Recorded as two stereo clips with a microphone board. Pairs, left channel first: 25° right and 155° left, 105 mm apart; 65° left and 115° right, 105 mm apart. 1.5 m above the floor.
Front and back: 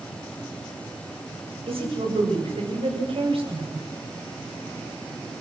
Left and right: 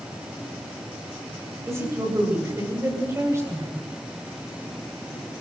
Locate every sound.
1.7 s a woman speaking: 175° right, 7.5 m